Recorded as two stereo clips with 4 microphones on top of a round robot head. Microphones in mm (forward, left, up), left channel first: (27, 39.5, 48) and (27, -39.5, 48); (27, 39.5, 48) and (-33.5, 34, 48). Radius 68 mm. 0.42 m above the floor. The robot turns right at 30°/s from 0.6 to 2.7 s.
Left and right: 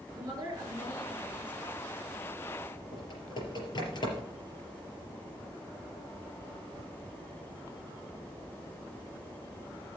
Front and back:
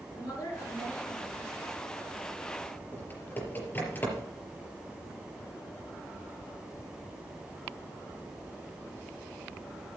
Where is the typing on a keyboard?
60° left, 4.5 m.